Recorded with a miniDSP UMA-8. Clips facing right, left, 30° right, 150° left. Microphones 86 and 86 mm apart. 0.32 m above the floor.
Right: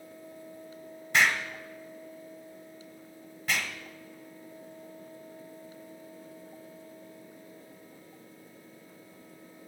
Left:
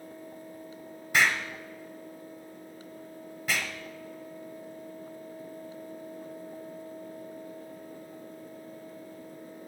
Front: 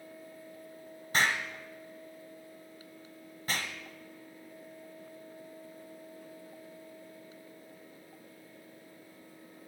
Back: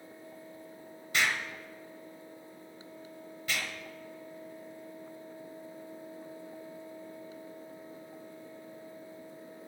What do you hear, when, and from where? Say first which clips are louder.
1.1 s an explosion: even, front 1 dB; 5° left, 1.1 m